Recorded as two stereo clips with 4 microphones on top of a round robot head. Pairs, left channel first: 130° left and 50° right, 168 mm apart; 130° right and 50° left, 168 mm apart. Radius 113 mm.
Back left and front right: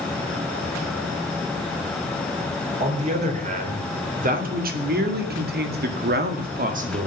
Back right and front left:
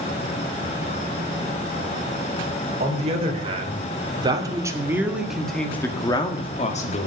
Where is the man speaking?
Straight ahead, 4 m; by 7.1 s 95° right, 2 m.